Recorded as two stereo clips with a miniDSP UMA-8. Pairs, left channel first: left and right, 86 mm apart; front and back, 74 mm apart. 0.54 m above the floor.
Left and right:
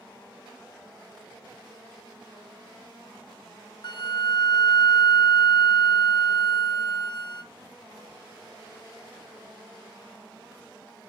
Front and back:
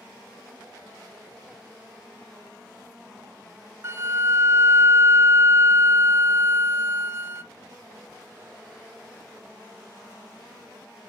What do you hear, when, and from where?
3.8 s a flute: 125° left, 0.6 m